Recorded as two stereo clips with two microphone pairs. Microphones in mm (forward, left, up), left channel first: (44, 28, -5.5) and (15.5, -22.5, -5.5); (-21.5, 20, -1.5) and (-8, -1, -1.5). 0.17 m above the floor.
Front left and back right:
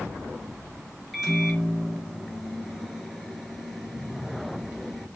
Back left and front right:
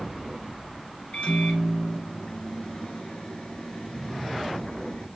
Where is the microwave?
155° left, 2.5 m.